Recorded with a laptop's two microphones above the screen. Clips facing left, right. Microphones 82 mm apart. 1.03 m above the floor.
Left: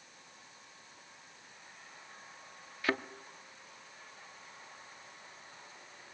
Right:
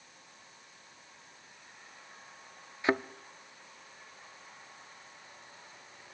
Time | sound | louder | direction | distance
2.8 | a thud | right 5 dB | 20° right (ahead or behind) | 0.5 m